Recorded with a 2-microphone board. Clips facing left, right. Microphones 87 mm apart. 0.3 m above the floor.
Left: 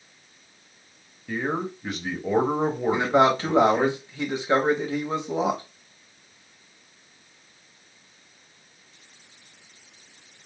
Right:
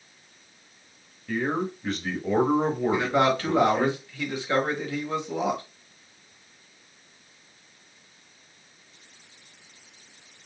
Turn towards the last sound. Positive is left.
turn(degrees=25)  # may be behind; listen again after turning